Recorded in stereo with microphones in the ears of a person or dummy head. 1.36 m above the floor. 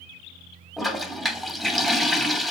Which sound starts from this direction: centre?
A toilet flushing, at 0.8 s.